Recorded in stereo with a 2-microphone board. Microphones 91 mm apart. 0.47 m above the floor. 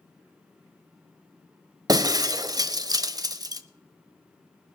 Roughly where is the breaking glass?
Right.